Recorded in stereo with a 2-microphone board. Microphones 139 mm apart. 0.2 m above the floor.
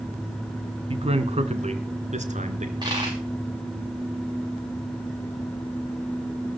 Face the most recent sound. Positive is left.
turn(degrees=-30)  # may be behind; listen again after turning